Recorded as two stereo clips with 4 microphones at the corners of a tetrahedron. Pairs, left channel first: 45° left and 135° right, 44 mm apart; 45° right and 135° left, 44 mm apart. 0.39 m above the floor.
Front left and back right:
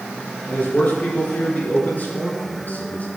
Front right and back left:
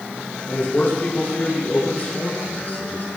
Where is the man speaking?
5° right, 6 m; by 3.1 s straight ahead, 4.5 m.